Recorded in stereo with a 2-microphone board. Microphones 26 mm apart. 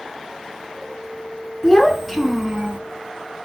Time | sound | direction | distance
1.6 | a child speaking | 20° left (ahead or behind) | 0.8 m